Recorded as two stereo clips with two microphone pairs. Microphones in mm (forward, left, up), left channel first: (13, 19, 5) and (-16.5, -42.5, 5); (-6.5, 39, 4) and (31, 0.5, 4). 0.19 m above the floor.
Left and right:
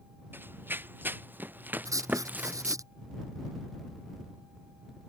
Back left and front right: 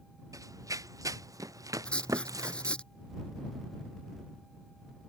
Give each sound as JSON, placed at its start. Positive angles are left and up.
{"t": 0.3, "sound": "running footsteps", "azimuth_deg": -55}
{"t": 1.9, "sound": "writing", "azimuth_deg": -155}